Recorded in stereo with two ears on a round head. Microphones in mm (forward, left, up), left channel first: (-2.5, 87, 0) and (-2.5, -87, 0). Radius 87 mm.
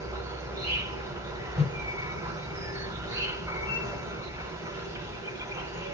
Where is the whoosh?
5° left (ahead or behind), 1.4 m.